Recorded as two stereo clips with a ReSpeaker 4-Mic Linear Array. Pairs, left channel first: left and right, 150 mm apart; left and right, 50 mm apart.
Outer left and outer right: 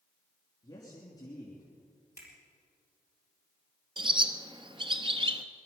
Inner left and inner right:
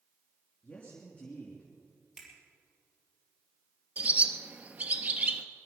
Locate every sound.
0.6 s a man speaking: 25° left (ahead or behind), 3 m
2.2 s a finger snap: 20° right (ahead or behind), 4 m
4.0 s a bird: 35° right (ahead or behind), 0.9 m